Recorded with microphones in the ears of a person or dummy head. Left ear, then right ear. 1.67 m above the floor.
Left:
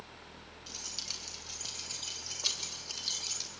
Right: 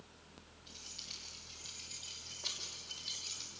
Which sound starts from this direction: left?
Keys jangling, at 0.7 s.